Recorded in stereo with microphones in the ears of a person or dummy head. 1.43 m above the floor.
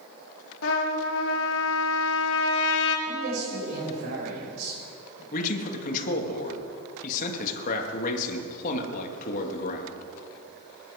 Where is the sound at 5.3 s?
45° left (ahead or behind), 2 m.